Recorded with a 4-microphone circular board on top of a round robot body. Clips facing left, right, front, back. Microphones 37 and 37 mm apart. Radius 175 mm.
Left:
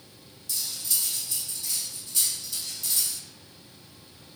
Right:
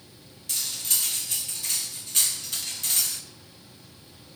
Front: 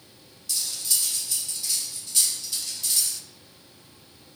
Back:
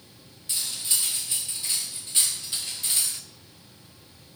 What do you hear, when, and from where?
0.5 s cutlery clinking: 125° right, 1.0 m